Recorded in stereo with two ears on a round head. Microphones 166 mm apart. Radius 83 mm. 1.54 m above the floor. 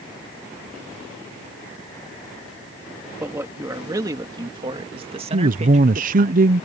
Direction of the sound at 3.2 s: 15° right (ahead or behind).